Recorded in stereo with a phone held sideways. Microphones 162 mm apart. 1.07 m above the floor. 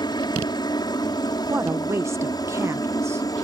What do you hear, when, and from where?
0.0 s a helicopter: 25° left (ahead or behind)
1.5 s a woman speaking: 15° right (ahead or behind)